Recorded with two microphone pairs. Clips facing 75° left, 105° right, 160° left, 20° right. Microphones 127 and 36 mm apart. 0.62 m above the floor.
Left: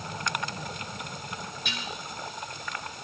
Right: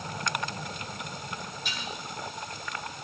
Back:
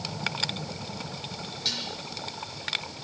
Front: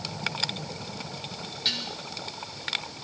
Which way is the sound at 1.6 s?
45° left.